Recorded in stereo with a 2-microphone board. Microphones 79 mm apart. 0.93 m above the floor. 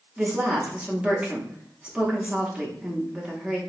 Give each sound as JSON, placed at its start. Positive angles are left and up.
{"t": 0.2, "sound": "a woman speaking", "side_deg": -15, "distance_m": 1.0}